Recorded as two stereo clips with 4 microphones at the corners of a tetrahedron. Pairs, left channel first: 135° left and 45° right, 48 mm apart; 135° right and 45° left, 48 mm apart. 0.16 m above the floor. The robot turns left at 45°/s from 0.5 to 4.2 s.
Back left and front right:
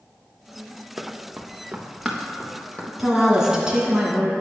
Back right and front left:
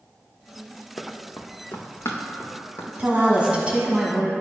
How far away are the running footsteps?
About 0.7 m.